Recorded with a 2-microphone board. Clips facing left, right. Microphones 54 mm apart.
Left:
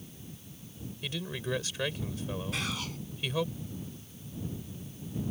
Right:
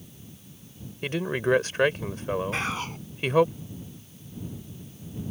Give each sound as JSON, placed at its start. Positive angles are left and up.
{"t": 1.0, "sound": "a man speaking", "side_deg": -50}
{"t": 2.5, "sound": "whispering", "side_deg": -35}